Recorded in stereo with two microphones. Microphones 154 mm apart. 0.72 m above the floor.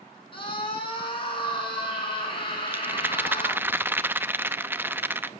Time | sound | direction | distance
0.3 | a scream | 35° left (ahead or behind) | 6.5 m
2.7 | a rattle | 15° right (ahead or behind) | 0.6 m